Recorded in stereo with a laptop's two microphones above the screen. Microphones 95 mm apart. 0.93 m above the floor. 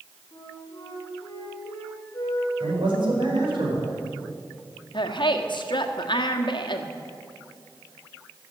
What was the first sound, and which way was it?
A flute, 35° left (ahead or behind).